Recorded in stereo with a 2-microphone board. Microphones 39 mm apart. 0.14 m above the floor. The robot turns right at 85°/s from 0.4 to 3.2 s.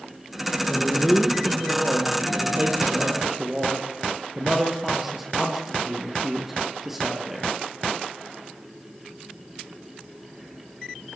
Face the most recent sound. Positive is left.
turn(degrees=-10)